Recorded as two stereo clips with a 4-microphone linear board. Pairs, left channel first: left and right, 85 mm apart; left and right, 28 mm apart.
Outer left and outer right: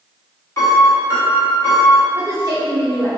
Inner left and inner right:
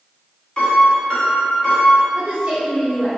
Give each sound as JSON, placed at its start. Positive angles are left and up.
{"t": 0.6, "sound": "a piano", "side_deg": 35, "distance_m": 0.9}
{"t": 2.1, "sound": "a woman speaking", "side_deg": -40, "distance_m": 0.7}